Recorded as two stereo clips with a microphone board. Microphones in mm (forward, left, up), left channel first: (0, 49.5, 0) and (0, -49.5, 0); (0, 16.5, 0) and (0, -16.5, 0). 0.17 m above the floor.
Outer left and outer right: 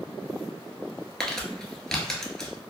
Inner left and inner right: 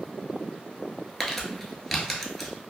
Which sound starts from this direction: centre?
Crumpling, at 1.2 s.